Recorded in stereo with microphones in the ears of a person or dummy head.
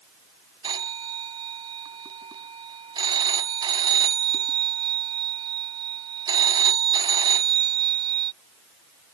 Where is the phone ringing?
25° right (ahead or behind).